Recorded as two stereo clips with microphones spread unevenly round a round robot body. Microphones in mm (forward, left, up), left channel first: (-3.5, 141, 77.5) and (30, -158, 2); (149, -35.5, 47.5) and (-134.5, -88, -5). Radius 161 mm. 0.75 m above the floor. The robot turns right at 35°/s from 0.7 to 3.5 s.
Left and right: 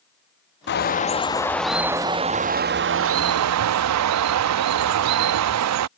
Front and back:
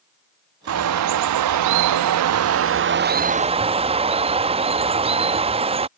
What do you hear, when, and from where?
0.7 s a bird: 160° left; by 5.9 s 105° right